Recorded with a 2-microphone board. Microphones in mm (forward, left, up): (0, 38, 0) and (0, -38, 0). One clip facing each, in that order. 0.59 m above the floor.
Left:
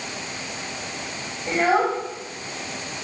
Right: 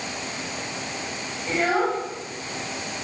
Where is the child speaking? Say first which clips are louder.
Left 3 dB; 25° left (ahead or behind), 2.5 m.